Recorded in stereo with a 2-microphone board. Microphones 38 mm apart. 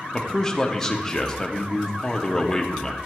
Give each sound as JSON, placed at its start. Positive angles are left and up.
{"t": 0.1, "sound": "a man speaking", "side_deg": 10, "distance_m": 1.0}